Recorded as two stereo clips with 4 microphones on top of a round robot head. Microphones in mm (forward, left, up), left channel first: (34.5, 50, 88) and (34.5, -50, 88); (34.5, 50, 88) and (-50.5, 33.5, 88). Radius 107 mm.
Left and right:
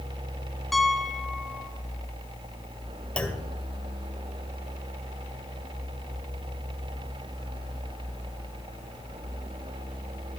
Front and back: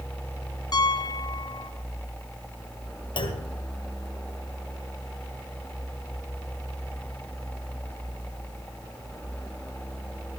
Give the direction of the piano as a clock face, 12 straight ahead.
12 o'clock.